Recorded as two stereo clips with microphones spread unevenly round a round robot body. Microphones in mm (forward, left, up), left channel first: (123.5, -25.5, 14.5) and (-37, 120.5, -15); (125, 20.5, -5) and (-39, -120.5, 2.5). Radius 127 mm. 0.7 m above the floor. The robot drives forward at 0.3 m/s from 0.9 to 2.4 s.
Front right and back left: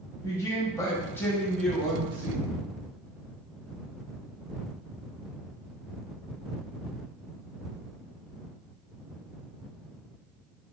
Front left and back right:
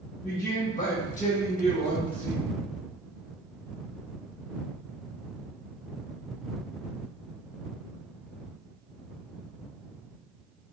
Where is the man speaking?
40° left, 0.9 m; by 2.5 s 95° left, 0.8 m.